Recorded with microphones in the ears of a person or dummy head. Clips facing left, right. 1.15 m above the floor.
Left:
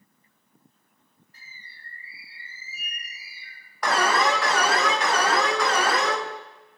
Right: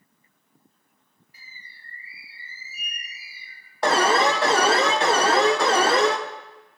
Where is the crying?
No crying in this recording.